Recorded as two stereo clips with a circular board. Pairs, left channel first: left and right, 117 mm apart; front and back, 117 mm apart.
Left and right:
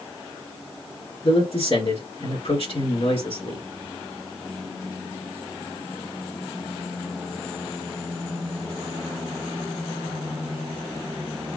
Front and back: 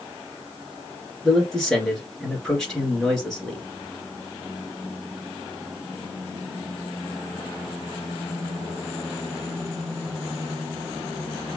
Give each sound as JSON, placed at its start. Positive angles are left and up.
{"t": 1.2, "sound": "a man speaking", "azimuth_deg": 85, "distance_m": 2.0}